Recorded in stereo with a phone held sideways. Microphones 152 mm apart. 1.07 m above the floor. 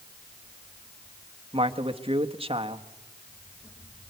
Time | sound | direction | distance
1.5 | a man speaking | 40° right (ahead or behind) | 1.4 m